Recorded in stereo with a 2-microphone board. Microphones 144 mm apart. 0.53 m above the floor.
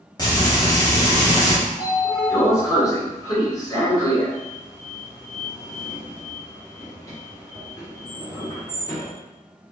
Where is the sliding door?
25° left (ahead or behind), 1.6 m.